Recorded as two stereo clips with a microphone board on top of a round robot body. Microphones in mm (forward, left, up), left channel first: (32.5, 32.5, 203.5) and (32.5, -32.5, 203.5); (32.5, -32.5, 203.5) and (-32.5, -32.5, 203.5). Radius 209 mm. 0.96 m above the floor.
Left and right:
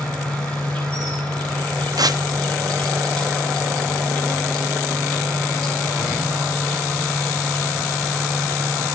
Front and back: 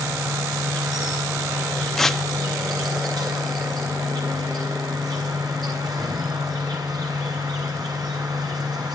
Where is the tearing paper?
85° right, 1.2 m.